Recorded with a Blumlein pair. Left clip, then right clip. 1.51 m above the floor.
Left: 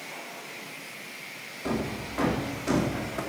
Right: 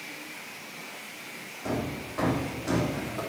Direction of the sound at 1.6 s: 10° left.